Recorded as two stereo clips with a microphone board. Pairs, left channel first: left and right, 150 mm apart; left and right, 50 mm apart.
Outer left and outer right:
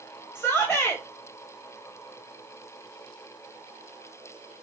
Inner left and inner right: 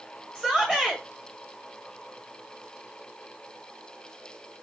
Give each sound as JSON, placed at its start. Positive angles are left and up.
{"t": 0.3, "sound": "a shout", "side_deg": 15, "distance_m": 1.6}